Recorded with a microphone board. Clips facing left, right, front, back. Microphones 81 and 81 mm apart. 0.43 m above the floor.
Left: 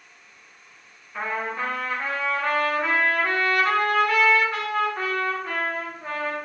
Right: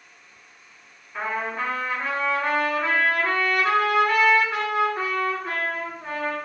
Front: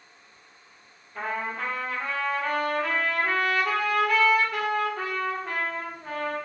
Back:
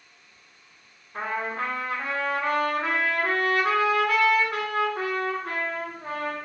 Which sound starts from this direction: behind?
A trumpet, at 1.1 s.